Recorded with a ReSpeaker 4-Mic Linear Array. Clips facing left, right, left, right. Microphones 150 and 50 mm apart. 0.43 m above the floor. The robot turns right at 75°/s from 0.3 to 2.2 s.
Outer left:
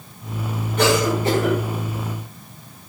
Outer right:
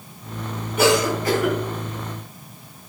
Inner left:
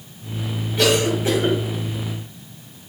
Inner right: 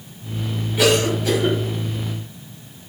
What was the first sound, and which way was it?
A cough, 10° right (ahead or behind).